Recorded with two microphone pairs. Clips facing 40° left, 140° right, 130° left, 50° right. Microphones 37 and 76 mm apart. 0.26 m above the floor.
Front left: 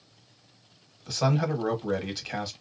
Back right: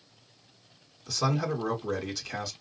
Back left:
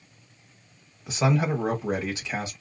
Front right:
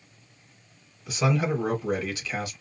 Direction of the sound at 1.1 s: 85° left.